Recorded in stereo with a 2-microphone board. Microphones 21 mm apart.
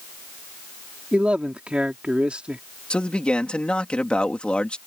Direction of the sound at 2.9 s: 55° left (ahead or behind).